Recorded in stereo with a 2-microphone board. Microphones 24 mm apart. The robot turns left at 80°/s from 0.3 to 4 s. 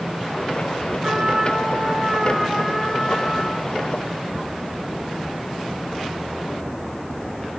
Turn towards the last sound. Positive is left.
turn(degrees=85)